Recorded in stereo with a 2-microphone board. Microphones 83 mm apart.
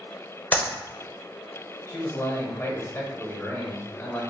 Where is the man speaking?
35° left (ahead or behind), 1.3 m.